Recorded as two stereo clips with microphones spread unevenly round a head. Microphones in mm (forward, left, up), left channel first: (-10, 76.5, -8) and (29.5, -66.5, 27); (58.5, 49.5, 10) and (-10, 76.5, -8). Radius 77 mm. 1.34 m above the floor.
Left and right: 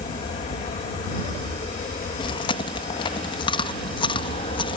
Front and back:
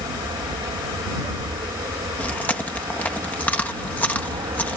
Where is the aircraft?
155° left.